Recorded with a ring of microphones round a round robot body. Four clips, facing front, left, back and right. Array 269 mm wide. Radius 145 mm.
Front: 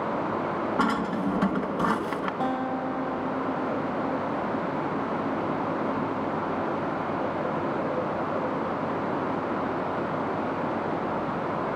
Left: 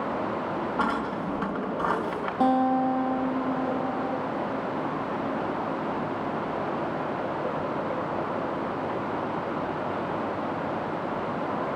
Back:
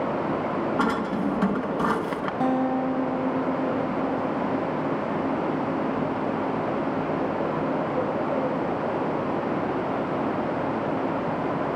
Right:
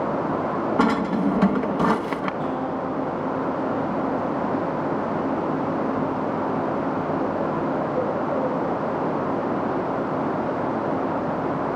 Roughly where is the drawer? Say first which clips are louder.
Right 9 dB, back 1 dB; right.